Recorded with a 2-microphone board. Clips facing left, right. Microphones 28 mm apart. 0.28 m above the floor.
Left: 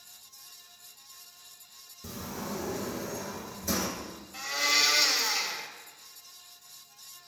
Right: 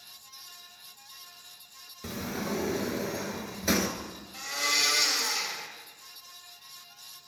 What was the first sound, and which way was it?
A sliding door, 60° right (ahead or behind).